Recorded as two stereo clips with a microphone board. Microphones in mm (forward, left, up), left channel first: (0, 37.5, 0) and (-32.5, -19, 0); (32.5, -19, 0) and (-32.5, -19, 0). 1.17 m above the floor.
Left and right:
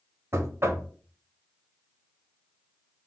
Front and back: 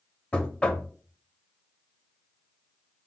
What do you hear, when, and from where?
0.3 s knocking: 70° right, 0.6 m